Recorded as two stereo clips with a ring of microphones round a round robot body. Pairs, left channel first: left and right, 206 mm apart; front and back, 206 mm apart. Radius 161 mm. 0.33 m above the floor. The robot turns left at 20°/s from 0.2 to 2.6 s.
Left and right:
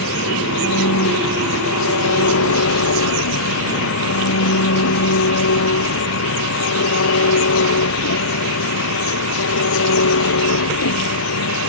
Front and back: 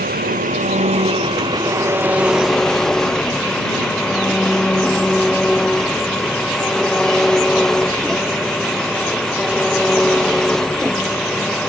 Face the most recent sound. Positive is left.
turn(degrees=90)